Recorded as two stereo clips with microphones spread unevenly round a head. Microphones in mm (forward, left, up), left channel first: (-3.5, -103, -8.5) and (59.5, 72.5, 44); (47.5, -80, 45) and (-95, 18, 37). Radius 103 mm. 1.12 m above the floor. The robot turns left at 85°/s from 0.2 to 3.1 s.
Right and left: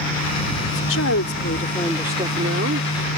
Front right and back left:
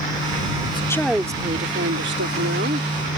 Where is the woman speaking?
85° right; by 2.9 s 80° left.